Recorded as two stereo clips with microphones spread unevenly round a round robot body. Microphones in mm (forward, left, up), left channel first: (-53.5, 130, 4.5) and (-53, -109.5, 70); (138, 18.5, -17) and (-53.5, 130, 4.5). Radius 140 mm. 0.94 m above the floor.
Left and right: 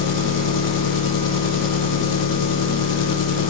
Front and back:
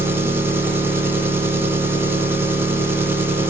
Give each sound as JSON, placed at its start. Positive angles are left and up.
{"t": 0.0, "sound": "an engine running", "azimuth_deg": 70, "distance_m": 0.7}